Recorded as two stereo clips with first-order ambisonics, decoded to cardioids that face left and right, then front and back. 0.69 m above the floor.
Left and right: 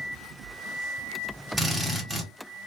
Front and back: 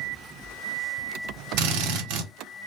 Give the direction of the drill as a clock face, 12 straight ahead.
6 o'clock.